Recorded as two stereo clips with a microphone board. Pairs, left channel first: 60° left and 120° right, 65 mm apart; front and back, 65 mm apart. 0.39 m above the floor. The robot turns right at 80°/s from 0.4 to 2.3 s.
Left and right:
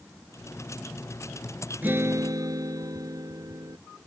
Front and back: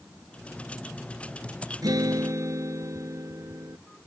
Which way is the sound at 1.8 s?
175° left.